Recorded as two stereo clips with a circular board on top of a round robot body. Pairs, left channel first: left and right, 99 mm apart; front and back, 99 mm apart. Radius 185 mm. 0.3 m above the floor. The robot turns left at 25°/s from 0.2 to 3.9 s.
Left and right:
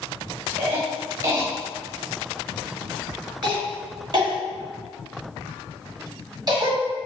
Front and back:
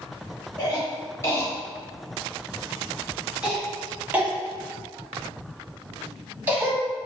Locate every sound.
0.6 s a cough: 30° right, 1.9 m; by 6.8 s 115° right, 1.9 m